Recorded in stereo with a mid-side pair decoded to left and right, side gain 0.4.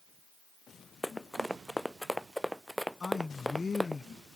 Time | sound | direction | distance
1.0 | running footsteps | 5° left | ?
3.0 | a man speaking | 35° left | ?